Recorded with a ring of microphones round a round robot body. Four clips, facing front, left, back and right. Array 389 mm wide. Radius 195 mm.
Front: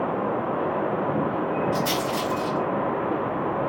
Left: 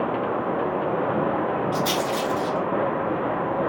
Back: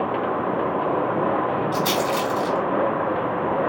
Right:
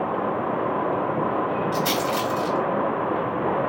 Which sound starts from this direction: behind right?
A rattle, at 1.7 s.